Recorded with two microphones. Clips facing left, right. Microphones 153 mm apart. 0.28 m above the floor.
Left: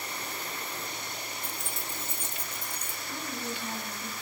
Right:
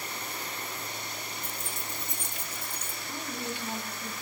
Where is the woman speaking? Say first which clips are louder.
Even; 15° right (ahead or behind), 2 m.